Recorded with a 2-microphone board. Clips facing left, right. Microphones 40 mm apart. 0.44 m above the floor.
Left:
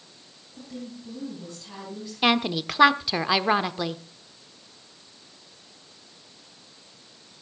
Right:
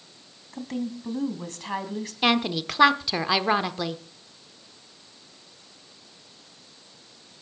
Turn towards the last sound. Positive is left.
turn(degrees=5)  # may be behind; listen again after turning